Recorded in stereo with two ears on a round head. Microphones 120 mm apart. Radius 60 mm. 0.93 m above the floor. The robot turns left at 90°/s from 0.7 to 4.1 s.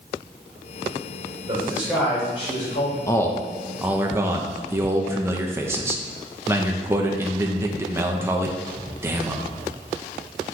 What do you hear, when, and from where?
1.5 s a man speaking: 140° right, 3.5 m; by 3.0 s 85° left, 3.5 m
3.1 s a man speaking: 20° left (ahead or behind), 0.9 m; by 9.5 s 20° right (ahead or behind), 0.9 m